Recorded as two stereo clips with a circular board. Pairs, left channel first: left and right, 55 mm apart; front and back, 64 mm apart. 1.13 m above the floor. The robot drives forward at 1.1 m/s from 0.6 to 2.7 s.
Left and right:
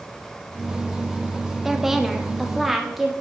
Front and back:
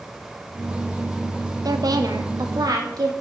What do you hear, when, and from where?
1.6 s a woman speaking: 175° right, 1.0 m